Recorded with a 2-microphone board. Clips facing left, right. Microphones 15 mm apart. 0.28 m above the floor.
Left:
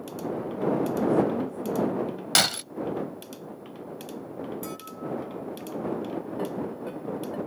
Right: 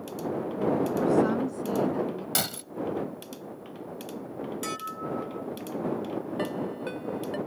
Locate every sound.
1.0 s a woman speaking: 45° right (ahead or behind); by 2.2 s 65° right (ahead or behind)
2.4 s breaking glass: 45° left (ahead or behind)
4.6 s dishes clattering: 40° right (ahead or behind)
6.4 s a ringtone: 45° right (ahead or behind)